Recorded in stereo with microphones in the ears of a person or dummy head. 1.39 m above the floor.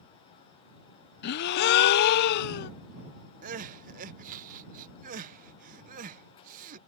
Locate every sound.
1.2 s a gasp: 60° left (ahead or behind)
3.4 s crying: 50° right (ahead or behind)